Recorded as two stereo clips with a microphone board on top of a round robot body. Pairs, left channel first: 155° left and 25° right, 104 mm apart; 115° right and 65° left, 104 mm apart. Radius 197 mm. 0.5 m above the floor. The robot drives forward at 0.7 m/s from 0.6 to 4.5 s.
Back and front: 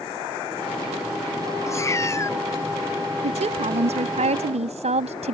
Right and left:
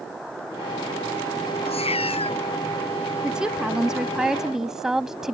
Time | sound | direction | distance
1.7 | a cat meowing | 140° right | ?
3.2 | a woman speaking | 15° right | ?